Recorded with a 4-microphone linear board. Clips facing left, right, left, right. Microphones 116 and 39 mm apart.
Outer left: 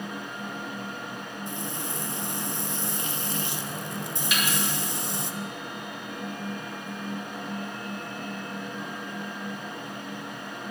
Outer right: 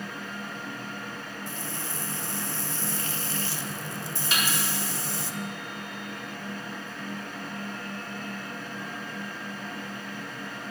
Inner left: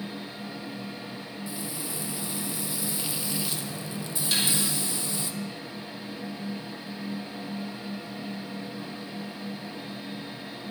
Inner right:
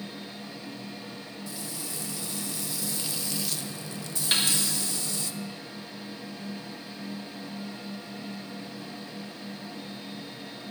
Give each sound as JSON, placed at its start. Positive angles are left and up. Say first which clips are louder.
{"t": 1.5, "sound": "frying", "louder": "outer left 3 dB, inner left 4 dB", "side_deg": 20, "distance_m": 0.5}
{"t": 4.3, "sound": "a snare drum", "louder": "even, inner right 2 dB", "side_deg": -35, "distance_m": 2.5}